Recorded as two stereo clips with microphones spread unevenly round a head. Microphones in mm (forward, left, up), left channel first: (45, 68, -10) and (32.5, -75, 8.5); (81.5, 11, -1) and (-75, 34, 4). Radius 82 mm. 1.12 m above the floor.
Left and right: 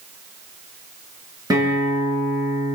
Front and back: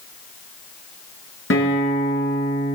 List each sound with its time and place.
1.5 s a guitar: 30° right, 9 m